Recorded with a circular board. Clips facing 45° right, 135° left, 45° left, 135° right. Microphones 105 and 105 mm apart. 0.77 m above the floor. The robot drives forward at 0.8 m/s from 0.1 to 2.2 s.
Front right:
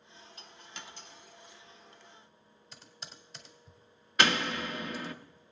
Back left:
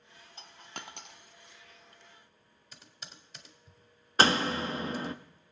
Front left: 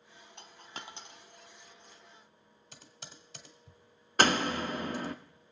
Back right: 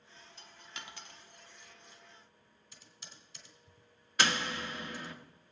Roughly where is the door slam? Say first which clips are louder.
Back left 3 dB, front left 6 dB; left.